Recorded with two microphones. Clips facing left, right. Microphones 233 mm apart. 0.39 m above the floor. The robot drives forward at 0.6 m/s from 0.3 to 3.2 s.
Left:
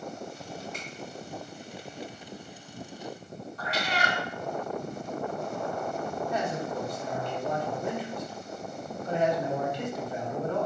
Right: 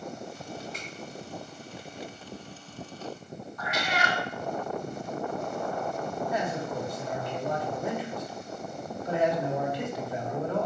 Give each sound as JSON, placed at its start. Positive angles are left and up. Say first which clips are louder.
{"t": 0.7, "sound": "a finger snap", "louder": "even", "side_deg": -40, "distance_m": 2.5}
{"t": 3.6, "sound": "a cat meowing", "louder": "even", "side_deg": 35, "distance_m": 0.6}
{"t": 6.3, "sound": "a man speaking", "louder": "even", "side_deg": -5, "distance_m": 1.3}